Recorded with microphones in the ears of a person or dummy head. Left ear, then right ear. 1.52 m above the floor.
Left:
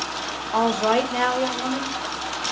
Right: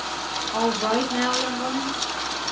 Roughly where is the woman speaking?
Left.